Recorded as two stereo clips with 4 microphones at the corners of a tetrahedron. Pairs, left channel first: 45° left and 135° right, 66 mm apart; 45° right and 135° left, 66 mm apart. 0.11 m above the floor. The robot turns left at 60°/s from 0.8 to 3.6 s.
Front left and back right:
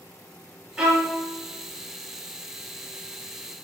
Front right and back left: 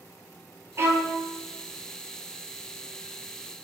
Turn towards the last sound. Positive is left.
turn(degrees=-20)